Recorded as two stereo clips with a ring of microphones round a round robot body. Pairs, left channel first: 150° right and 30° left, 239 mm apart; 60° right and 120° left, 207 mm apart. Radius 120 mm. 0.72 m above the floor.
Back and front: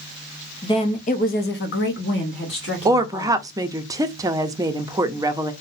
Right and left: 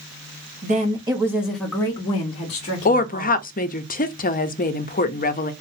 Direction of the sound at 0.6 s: 145° left.